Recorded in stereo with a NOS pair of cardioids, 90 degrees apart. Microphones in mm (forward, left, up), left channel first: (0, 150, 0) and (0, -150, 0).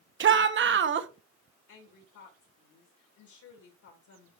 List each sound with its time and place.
0.2 s a shout: 40° right, 1.1 m
1.7 s a woman speaking: 70° left, 3.5 m